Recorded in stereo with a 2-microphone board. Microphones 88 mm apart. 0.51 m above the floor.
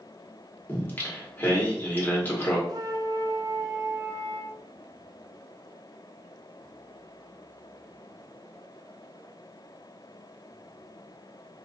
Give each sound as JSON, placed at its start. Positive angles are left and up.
{"t": 0.7, "sound": "singing", "side_deg": 20, "distance_m": 1.1}
{"t": 2.7, "sound": "a flute", "side_deg": -45, "distance_m": 0.5}